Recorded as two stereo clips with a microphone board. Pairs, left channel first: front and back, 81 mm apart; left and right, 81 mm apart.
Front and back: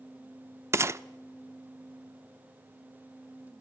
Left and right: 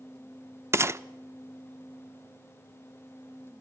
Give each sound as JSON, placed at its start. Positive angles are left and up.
{"t": 0.7, "sound": "a gunshot", "azimuth_deg": -135, "distance_m": 0.5}